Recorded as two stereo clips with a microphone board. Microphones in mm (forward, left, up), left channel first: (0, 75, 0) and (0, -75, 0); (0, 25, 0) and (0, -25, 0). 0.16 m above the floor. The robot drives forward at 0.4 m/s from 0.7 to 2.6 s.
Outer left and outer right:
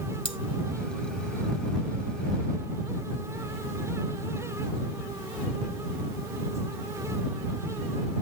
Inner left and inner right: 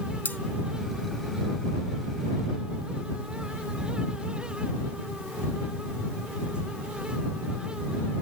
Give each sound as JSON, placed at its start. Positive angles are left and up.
{"t": 0.2, "sound": "cutlery clinking", "side_deg": 40, "distance_m": 0.7}